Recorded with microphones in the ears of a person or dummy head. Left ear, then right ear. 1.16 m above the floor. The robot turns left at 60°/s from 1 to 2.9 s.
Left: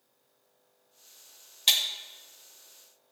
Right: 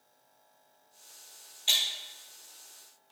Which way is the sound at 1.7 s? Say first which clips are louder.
Left 2 dB; 45° left (ahead or behind).